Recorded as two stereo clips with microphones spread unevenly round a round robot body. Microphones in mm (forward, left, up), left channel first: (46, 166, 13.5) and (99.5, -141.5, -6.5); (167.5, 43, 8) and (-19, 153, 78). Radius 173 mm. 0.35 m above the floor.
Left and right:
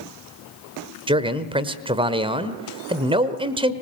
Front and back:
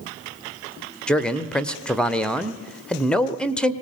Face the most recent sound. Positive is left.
turn(degrees=-50)